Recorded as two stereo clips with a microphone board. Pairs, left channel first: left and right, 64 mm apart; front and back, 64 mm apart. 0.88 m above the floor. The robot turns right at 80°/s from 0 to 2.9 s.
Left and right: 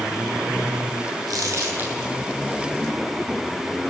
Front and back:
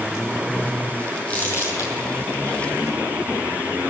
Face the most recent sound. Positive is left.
turn(degrees=55)